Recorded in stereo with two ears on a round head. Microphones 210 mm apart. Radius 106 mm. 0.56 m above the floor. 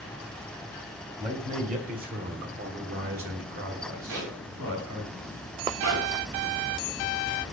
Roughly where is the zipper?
Right.